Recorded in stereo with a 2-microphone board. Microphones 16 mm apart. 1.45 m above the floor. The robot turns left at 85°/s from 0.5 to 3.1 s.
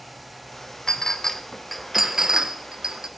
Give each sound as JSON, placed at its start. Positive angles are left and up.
{"t": 0.9, "sound": "a clink", "side_deg": 50, "distance_m": 0.7}